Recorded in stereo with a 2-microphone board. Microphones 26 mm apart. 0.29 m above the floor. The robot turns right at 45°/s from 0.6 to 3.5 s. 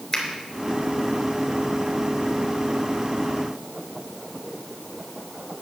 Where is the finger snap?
20° left (ahead or behind), 3.5 m.